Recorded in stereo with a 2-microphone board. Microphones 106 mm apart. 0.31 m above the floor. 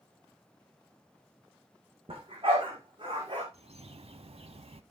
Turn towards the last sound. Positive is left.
turn(degrees=-70)  # may be behind; listen again after turning